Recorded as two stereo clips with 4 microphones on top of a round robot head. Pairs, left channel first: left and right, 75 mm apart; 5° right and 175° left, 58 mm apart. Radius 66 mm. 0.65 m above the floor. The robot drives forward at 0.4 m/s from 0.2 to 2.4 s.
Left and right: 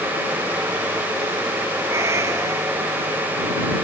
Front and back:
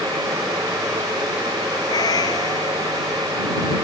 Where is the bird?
I don't hear a bird.